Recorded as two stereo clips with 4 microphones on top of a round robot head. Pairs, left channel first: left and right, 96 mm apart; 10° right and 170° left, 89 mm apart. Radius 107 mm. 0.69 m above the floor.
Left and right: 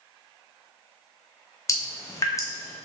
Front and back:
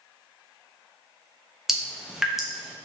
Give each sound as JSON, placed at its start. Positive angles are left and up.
{"t": 1.7, "sound": "dripping", "azimuth_deg": 90, "distance_m": 1.1}